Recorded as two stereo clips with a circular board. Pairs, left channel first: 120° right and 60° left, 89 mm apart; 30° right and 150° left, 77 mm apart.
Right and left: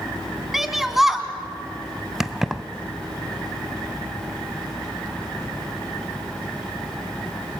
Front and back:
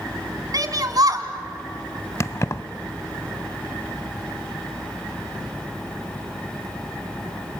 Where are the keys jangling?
25° right, 0.8 m.